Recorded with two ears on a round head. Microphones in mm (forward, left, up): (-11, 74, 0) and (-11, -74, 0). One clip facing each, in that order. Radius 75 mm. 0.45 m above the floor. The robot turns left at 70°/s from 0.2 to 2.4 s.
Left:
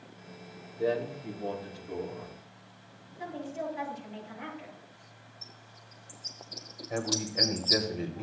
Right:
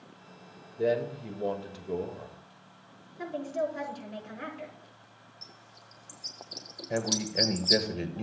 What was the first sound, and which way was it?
A man speaking, 35° right.